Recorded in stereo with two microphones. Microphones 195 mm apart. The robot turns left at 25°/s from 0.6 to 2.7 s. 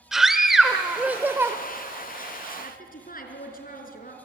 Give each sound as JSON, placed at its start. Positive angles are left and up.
{"t": 0.1, "sound": "a scream", "side_deg": 0, "distance_m": 1.0}
{"t": 2.6, "sound": "a woman speaking", "side_deg": 45, "distance_m": 4.0}